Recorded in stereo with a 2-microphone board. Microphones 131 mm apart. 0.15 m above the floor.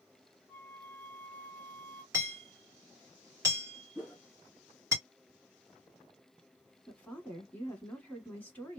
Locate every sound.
0.5 s a flute: 15° left (ahead or behind), 0.5 m
2.1 s hammering: 20° right (ahead or behind), 1.8 m
4.0 s a whoosh: 15° right (ahead or behind), 0.9 m
6.9 s a woman speaking: 10° left (ahead or behind), 1.1 m